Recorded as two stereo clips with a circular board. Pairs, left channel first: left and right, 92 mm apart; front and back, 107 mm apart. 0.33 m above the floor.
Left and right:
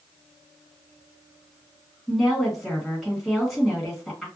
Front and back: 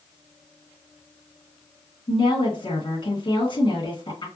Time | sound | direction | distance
2.1 | a woman speaking | straight ahead | 1.5 m